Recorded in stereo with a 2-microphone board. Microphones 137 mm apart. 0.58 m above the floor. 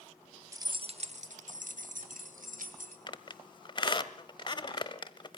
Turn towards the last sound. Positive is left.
turn(degrees=35)  # may be behind; listen again after turning